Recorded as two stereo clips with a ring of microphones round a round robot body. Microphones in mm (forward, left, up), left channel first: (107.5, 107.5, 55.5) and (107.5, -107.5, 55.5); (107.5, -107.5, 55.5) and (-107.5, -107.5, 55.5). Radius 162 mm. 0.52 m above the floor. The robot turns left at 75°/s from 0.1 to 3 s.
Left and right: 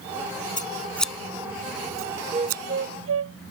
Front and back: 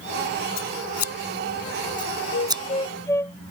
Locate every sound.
0.6 s scissors: 40° left; by 2.6 s 115° right
2.3 s a flute: 25° right; by 3.4 s 80° right